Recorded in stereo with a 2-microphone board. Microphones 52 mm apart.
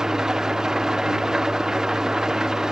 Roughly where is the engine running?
Centre.